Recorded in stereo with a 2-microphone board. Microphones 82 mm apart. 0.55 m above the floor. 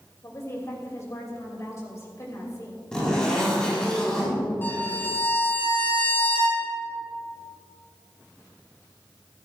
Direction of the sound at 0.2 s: 40° left (ahead or behind).